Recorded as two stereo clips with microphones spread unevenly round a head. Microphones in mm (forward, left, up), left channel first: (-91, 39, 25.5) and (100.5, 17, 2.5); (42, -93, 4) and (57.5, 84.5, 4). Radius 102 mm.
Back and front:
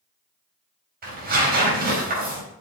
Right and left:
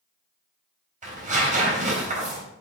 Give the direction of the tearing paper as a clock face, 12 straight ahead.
11 o'clock.